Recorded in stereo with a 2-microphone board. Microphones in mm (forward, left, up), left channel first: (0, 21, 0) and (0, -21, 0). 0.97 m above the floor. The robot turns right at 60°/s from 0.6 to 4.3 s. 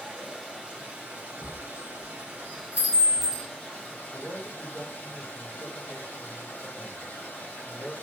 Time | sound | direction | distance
0.0 | running water | 155° right | 2.5 m
1.4 | a chime | 65° right (ahead or behind) | 2.5 m
4.1 | a man speaking | 60° left (ahead or behind) | 1.2 m